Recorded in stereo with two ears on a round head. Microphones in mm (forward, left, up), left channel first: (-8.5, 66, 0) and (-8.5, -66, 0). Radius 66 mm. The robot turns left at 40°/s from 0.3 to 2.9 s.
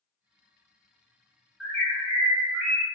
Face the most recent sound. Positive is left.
turn(degrees=-50)